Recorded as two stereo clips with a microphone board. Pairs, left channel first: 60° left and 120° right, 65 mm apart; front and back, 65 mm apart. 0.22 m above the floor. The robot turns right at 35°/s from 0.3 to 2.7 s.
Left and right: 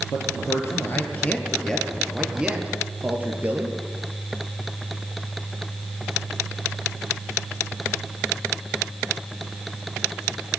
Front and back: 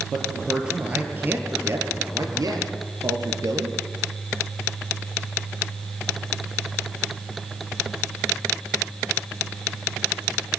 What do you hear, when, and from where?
0.1 s a man speaking: 90° left, 4 m; by 3.8 s 175° left, 4 m